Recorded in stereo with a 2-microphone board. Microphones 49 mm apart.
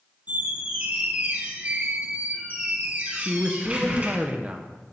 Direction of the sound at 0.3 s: 35° right (ahead or behind).